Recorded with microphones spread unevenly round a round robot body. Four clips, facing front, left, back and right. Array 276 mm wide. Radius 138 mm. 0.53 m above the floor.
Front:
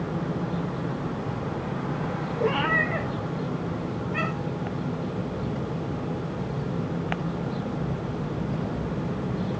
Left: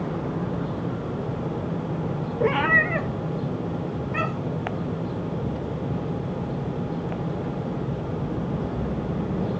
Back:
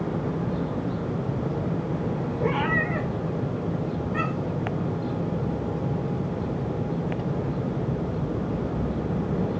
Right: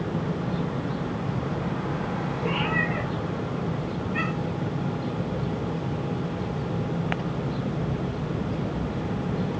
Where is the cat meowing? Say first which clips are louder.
Left 7 dB, front 1 dB; 65° left, 1.1 m.